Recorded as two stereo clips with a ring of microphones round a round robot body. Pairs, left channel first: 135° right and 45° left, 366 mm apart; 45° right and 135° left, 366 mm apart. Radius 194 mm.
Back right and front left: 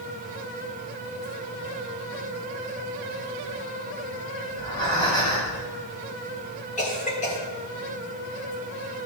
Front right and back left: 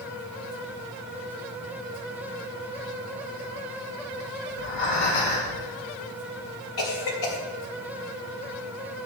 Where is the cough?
65° right, 3 m.